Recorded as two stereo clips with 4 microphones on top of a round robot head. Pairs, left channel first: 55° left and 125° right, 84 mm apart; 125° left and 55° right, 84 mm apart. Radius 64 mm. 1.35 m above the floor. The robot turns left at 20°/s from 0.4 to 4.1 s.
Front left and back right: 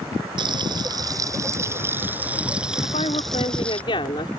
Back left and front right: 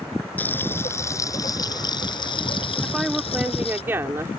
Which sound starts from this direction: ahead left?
A woman speaking, at 2.8 s.